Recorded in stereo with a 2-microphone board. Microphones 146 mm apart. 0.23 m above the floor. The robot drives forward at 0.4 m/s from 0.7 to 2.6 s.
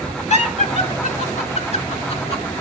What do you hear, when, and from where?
0.3 s laughter: 55° left (ahead or behind), 3 m; by 2.5 s 45° left (ahead or behind), 3.5 m